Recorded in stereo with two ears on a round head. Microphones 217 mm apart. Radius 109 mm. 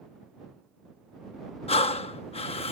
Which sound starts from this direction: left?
Breathing, at 1.7 s.